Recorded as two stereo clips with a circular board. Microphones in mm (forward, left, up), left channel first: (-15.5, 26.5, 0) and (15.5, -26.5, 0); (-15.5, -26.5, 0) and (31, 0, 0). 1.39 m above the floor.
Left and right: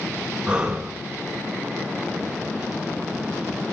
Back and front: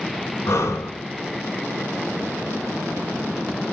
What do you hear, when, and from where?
0.5 s breathing: 135° right, 6 m